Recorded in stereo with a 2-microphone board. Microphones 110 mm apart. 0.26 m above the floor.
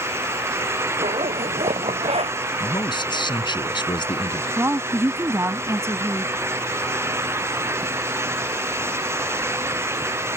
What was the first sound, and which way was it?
A zipper, 65° right (ahead or behind).